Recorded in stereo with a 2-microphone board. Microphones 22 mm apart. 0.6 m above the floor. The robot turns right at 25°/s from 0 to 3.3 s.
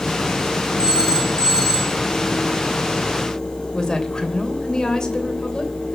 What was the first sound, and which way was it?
A phone ringing, 60° right (ahead or behind).